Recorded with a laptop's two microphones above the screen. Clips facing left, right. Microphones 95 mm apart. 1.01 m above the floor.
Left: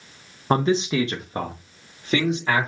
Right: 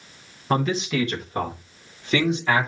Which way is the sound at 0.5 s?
25° left (ahead or behind).